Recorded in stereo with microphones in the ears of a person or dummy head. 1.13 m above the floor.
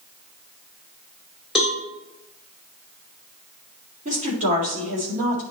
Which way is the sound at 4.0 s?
40° right (ahead or behind).